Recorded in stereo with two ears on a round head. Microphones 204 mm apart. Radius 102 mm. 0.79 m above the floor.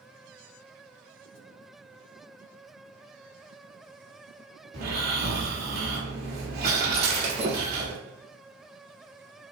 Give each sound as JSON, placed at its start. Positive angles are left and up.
{"t": 4.7, "sound": "snoring", "side_deg": -45, "distance_m": 2.0}
{"t": 6.9, "sound": "breaking glass", "side_deg": -30, "distance_m": 1.2}